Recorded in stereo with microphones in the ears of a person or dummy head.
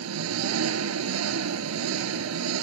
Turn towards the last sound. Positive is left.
turn(degrees=-85)